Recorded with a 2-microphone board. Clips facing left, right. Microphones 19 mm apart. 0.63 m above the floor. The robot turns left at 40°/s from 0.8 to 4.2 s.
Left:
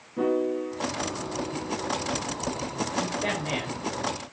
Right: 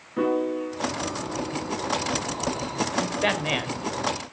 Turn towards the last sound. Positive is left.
turn(degrees=-175)